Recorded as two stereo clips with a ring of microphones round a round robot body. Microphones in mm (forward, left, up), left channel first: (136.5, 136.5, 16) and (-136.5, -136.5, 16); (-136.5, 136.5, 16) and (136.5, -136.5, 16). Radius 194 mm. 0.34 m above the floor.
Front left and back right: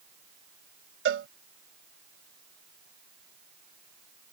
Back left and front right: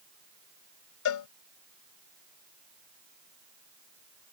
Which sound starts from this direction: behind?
A cowbell, at 1.1 s.